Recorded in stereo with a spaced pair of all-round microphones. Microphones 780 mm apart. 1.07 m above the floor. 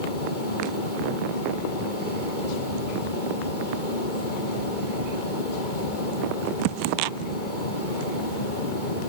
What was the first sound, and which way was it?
A fan, 85° left.